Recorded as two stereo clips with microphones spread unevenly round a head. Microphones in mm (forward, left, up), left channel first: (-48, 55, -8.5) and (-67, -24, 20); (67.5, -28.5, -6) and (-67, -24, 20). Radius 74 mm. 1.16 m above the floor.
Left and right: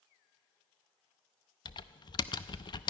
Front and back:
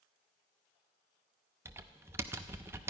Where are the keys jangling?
No keys jangling in this recording.